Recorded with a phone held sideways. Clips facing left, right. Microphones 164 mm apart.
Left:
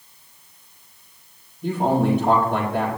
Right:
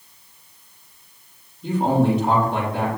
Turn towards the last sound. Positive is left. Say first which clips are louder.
# right 1 dB
turn(degrees=65)  # may be behind; listen again after turning